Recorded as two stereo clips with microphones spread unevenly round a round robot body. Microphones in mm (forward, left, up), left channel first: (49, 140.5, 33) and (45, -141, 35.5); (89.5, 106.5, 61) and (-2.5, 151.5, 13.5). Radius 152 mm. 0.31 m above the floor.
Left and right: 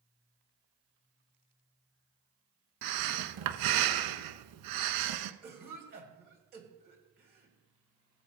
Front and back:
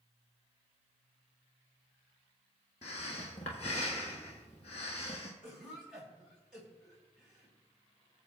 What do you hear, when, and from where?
2.8 s breathing: 80° right, 0.7 m
5.4 s a cough: 145° right, 2.5 m